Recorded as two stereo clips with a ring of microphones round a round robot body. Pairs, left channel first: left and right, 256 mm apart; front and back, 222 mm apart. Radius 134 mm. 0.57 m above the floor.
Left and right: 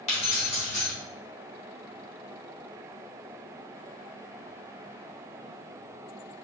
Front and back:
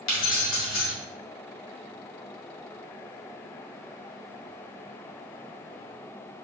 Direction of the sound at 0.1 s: 25° left.